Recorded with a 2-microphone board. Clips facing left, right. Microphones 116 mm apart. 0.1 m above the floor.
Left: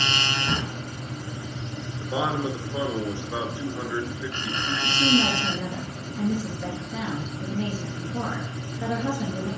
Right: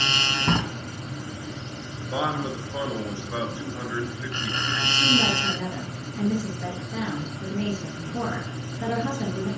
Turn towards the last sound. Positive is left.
turn(degrees=10)  # may be behind; listen again after turning